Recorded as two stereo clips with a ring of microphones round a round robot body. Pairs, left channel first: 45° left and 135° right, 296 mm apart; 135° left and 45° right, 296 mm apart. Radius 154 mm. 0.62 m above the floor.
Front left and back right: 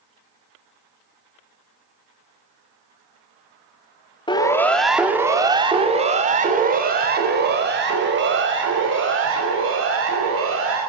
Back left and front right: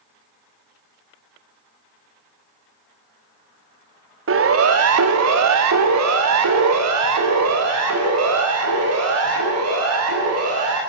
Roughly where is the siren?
Ahead right.